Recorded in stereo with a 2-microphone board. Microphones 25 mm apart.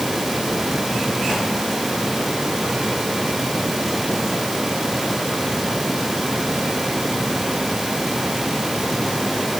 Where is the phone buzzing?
I don't hear a phone buzzing.